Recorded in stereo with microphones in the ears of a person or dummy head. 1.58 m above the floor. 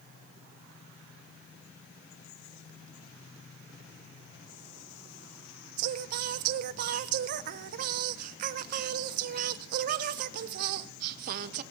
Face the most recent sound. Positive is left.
turn(degrees=-55)  # may be behind; listen again after turning